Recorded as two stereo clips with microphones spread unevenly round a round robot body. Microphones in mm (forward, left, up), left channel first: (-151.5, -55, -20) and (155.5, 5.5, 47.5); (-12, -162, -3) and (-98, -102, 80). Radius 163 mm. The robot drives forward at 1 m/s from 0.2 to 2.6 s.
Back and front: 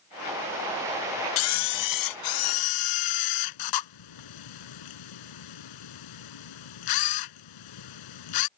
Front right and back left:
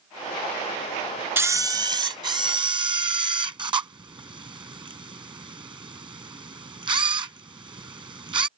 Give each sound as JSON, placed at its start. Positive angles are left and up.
{"t": 1.4, "sound": "a camera shutter", "azimuth_deg": -125}